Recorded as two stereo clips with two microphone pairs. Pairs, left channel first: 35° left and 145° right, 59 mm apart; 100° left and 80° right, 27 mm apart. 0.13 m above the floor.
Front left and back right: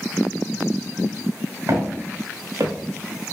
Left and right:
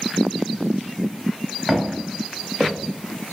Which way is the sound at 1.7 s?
170° right.